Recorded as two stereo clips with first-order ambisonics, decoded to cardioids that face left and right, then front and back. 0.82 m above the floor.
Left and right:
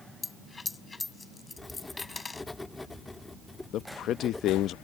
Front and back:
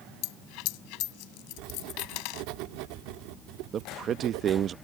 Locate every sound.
0.2 s a dropped coin: 15° left
1.6 s writing: 170° left
3.7 s a man speaking: 130° left